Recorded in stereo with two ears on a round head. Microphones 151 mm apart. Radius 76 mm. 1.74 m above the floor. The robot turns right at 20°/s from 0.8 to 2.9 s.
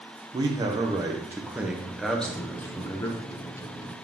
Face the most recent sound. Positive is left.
turn(degrees=20)  # may be behind; listen again after turning